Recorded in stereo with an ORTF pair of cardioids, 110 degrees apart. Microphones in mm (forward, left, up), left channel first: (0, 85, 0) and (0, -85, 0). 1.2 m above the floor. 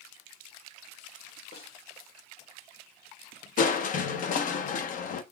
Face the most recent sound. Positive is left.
turn(degrees=55)